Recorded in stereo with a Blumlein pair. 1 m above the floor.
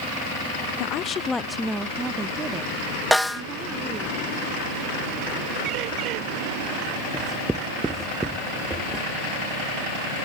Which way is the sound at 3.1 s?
5° left.